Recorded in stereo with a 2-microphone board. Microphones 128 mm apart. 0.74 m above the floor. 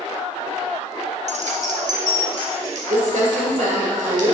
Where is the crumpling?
80° right, 1.9 m.